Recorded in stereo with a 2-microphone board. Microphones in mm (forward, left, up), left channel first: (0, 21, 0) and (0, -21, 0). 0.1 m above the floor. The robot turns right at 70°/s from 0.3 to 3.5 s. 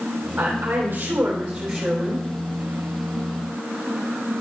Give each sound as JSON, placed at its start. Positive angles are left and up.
{"t": 0.4, "sound": "a woman speaking", "azimuth_deg": -105, "distance_m": 4.0}